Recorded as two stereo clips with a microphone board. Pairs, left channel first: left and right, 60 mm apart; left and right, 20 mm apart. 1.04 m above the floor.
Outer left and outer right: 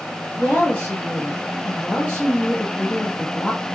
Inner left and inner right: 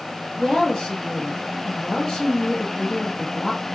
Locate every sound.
0.4 s a woman speaking: 25° left (ahead or behind), 1.3 m